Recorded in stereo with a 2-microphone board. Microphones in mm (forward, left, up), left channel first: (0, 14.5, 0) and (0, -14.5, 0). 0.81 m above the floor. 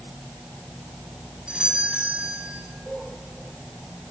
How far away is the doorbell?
About 9 m.